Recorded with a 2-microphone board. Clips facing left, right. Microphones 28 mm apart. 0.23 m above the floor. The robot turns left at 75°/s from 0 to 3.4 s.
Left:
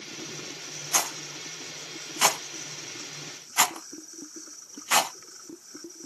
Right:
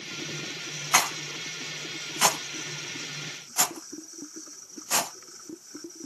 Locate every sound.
0.9 s a rattle: 55° right (ahead or behind), 0.7 m; by 5.1 s 55° left (ahead or behind), 0.7 m